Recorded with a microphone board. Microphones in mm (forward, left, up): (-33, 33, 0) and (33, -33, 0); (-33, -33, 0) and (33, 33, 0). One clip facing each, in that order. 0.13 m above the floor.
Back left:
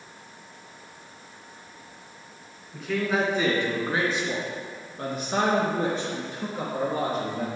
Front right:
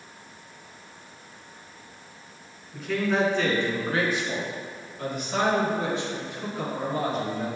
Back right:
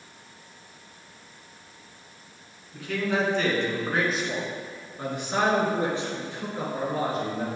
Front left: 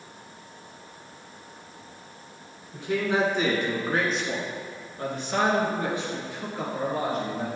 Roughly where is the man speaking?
Ahead left.